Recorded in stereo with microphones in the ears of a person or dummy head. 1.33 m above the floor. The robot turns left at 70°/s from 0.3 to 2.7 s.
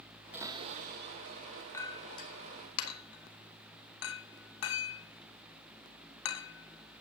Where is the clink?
20° left (ahead or behind), 1.8 m; by 7.0 s 80° left, 1.8 m.